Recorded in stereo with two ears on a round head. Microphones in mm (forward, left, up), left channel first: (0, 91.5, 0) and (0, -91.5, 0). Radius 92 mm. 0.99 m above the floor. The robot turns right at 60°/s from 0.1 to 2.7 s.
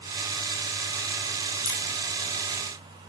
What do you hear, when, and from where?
1.6 s a crack: 20° left (ahead or behind), 8.5 m; by 1.8 s 10° left (ahead or behind), 8.5 m